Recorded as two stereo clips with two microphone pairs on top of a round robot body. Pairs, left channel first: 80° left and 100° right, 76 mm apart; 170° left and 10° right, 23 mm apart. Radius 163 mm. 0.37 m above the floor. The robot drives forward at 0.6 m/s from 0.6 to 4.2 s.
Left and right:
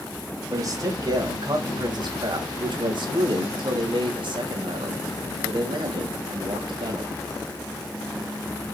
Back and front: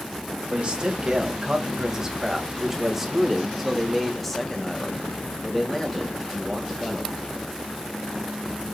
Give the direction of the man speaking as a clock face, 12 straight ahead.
2 o'clock.